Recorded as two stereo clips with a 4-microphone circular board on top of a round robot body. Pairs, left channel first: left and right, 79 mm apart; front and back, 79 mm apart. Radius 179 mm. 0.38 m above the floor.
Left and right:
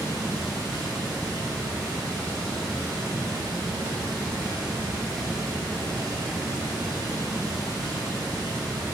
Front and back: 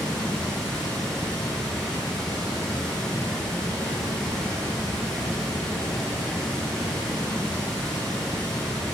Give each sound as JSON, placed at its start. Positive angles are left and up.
{"t": 0.0, "sound": "running water", "azimuth_deg": -80, "distance_m": 1.6}